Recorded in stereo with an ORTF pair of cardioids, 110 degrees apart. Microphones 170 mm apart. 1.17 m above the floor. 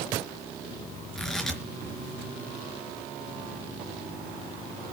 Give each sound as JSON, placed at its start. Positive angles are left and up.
{"t": 1.1, "sound": "tearing paper", "azimuth_deg": 0, "distance_m": 4.0}